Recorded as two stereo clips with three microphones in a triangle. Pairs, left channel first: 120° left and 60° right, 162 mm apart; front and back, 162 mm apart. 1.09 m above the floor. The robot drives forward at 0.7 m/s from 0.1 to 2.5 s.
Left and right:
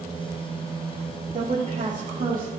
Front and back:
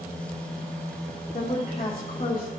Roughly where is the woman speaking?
Ahead.